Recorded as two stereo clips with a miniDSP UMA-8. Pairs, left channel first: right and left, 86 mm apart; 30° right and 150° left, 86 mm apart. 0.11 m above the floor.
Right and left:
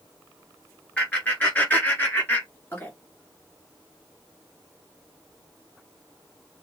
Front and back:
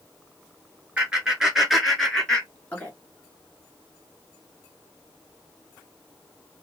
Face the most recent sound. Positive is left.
turn(degrees=-70)